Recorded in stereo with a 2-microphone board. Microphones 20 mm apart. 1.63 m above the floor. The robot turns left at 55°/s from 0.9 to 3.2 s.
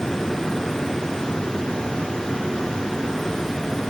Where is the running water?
150° left, 2.5 m; by 3.9 s 25° left, 2.5 m.